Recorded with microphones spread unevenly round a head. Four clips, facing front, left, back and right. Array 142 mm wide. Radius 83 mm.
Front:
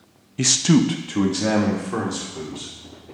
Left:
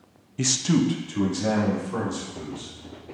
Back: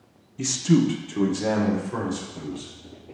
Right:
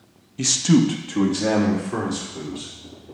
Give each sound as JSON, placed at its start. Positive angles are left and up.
{"t": 0.4, "sound": "a man speaking", "azimuth_deg": 15, "distance_m": 0.8}